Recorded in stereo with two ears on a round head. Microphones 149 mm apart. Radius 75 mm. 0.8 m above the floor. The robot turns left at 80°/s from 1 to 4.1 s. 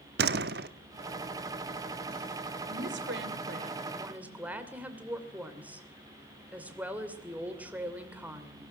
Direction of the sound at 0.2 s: 65° right (ahead or behind).